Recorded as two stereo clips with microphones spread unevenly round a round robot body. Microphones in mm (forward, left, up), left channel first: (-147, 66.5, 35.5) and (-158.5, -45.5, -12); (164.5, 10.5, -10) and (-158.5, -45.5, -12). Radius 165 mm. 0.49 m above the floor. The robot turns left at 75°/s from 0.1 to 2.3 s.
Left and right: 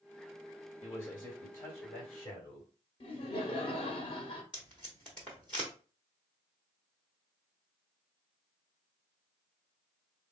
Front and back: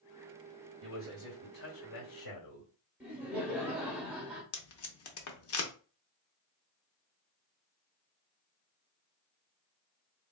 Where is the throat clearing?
No throat clearing in this recording.